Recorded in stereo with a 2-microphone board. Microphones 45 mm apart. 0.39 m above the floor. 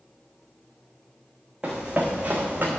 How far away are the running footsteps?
About 1.9 m.